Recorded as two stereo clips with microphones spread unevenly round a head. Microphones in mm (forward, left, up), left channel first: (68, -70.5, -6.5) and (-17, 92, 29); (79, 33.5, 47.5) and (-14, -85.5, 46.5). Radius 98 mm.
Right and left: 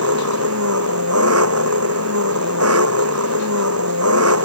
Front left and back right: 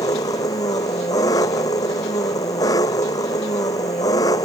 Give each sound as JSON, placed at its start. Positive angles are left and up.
{"t": 0.0, "sound": "an engine running", "azimuth_deg": 125}